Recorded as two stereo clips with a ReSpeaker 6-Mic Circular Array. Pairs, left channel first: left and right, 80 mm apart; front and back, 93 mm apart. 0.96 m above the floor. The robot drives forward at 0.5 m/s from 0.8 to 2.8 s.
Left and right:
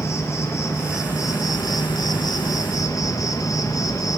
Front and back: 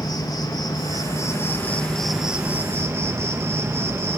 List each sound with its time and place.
0.0 s an insect: 40° left, 1.0 m; by 4.2 s 125° left, 0.8 m